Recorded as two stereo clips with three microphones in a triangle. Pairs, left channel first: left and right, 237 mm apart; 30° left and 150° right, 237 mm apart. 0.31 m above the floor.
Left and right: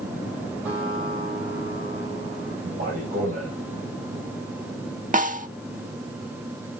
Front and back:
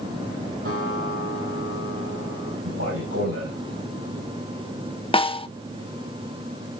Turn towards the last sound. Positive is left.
turn(degrees=-40)